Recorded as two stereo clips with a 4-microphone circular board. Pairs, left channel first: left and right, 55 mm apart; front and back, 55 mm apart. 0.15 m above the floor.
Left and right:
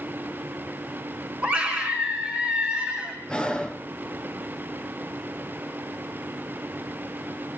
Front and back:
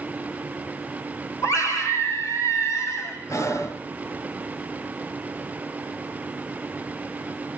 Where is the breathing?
15° left, 1.0 m.